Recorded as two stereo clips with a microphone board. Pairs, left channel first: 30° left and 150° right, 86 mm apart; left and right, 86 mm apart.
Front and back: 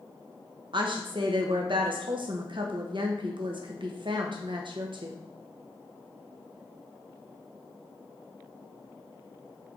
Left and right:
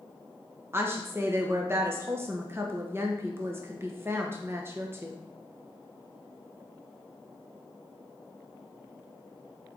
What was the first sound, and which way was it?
A woman speaking, 150° right.